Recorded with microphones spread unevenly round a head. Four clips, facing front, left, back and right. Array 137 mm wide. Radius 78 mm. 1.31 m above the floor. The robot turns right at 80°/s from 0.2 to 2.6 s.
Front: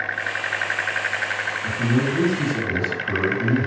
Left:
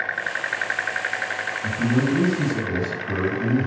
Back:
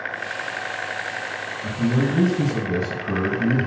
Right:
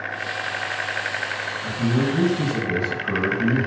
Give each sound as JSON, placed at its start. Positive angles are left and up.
{"t": 1.6, "sound": "a man speaking", "azimuth_deg": 140, "distance_m": 1.1}